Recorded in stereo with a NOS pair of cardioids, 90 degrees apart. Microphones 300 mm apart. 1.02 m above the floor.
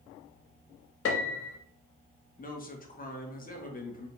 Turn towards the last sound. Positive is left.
turn(degrees=30)